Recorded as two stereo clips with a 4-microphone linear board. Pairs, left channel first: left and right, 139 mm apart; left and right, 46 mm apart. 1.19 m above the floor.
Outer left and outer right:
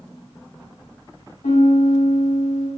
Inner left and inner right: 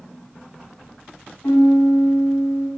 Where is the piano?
65° left (ahead or behind), 0.5 m.